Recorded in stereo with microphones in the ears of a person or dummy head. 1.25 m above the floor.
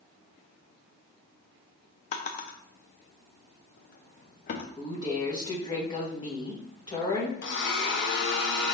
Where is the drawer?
40° left (ahead or behind), 0.5 m.